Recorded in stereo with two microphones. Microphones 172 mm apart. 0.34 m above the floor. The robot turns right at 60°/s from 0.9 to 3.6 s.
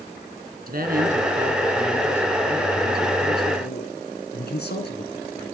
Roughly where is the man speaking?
Ahead right.